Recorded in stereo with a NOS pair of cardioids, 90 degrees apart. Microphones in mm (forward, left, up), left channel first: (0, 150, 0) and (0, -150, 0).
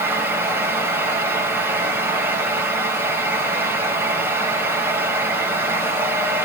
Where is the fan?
10° right, 4.5 m.